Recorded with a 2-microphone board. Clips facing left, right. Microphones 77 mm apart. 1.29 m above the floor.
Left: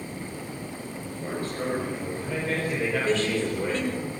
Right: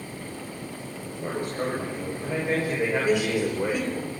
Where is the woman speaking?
15° right (ahead or behind), 5 m.